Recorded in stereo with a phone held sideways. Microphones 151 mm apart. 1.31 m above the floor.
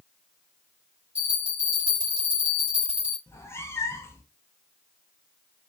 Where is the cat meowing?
15° left (ahead or behind), 0.6 m.